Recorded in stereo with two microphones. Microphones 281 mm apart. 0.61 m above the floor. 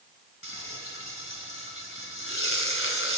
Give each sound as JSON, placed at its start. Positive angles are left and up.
{"t": 0.4, "sound": "frying", "side_deg": 45, "distance_m": 1.7}